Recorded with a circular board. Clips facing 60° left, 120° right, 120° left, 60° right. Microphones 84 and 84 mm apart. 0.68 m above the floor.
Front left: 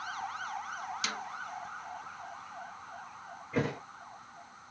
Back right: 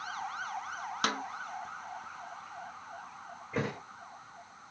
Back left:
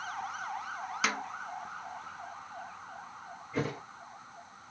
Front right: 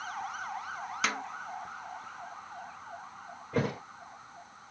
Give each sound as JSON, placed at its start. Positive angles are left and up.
{"t": 1.0, "sound": "a snare drum", "azimuth_deg": -150, "distance_m": 0.8}
{"t": 3.5, "sound": "a thud", "azimuth_deg": -30, "distance_m": 4.0}